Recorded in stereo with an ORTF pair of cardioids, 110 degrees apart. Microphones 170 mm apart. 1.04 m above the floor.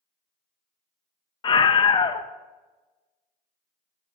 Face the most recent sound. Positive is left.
turn(degrees=30)